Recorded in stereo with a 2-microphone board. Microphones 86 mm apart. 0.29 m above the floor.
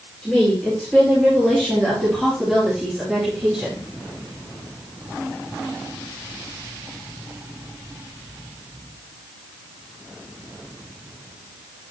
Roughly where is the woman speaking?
Centre.